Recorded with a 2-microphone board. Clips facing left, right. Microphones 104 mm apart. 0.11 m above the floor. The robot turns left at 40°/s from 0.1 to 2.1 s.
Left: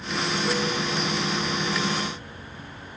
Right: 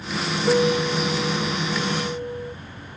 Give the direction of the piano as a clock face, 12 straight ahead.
1 o'clock.